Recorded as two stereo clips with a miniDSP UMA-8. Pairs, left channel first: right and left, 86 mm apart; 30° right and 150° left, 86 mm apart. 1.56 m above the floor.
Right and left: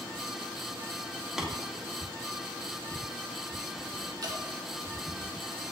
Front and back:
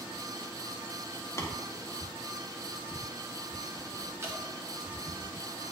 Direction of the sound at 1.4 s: 10° left.